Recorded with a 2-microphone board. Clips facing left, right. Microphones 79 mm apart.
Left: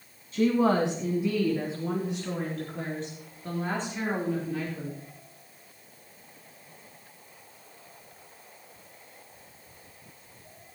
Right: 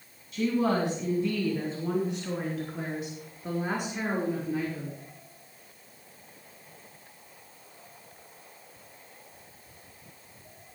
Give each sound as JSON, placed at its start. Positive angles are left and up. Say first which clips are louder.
{"t": 0.3, "sound": "a woman speaking", "louder": "left 3 dB", "side_deg": 35, "distance_m": 2.5}